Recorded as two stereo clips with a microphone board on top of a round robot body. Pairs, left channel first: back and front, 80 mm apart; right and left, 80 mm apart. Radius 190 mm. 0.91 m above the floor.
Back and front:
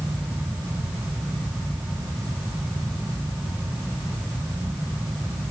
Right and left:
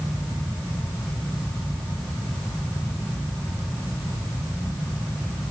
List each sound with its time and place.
Only background noise.